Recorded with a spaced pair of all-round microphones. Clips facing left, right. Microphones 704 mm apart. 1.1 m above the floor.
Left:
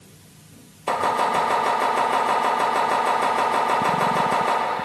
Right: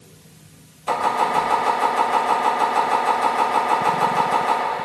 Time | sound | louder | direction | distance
0.9 | chopping | even | 75° left (ahead or behind) | 6 m